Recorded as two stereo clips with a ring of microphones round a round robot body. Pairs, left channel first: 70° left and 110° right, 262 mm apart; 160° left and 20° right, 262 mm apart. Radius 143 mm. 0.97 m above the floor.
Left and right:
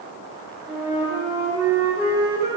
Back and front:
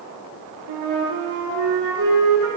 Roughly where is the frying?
No frying in this recording.